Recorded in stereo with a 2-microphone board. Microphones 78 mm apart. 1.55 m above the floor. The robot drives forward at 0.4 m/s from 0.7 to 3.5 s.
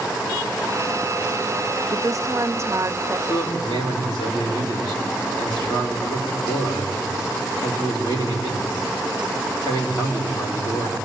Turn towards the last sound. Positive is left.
turn(degrees=60)  # may be behind; listen again after turning